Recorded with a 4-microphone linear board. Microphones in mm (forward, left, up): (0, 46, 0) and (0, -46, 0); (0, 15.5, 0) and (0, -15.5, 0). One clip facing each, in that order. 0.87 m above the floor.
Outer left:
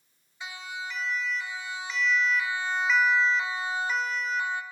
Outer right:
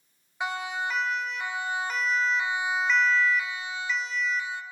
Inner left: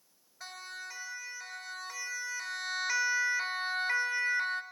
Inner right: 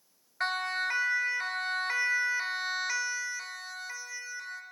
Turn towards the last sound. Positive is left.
turn(degrees=60)  # may be behind; listen again after turning